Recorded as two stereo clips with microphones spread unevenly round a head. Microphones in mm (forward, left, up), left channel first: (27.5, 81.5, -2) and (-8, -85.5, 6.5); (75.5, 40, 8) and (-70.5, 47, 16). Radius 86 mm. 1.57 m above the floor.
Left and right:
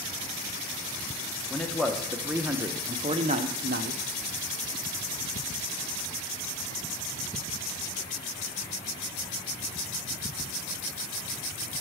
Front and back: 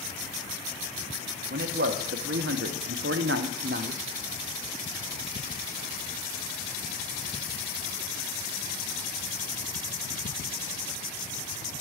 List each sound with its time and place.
1.5 s a man speaking: 160° left, 1.4 m; by 4.0 s 135° right, 1.0 m